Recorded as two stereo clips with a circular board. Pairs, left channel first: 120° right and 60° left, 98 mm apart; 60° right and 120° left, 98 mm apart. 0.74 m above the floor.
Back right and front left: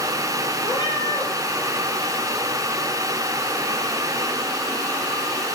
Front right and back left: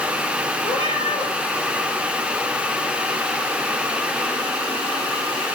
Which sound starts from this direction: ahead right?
A cat meowing, at 0.6 s.